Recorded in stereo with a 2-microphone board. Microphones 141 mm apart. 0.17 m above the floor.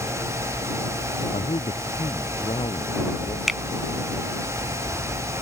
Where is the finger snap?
Centre (ahead or behind).